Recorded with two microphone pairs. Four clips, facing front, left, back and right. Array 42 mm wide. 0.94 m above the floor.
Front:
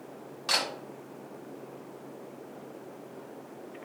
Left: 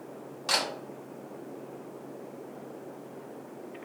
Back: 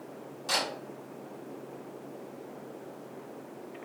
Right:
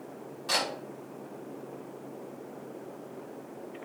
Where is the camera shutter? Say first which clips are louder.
Left 1 dB, front 1 dB; 40° left, 1.3 m.